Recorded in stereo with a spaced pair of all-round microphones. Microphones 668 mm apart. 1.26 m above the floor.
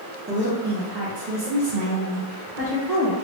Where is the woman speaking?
15° right (ahead or behind), 0.8 m; by 3.1 s 60° right (ahead or behind), 1.3 m.